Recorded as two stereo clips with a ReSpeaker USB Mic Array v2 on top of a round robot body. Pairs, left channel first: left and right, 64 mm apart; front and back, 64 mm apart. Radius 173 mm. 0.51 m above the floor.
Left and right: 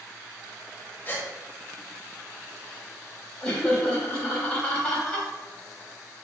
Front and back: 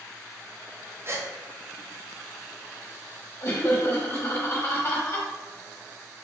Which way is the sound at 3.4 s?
25° left.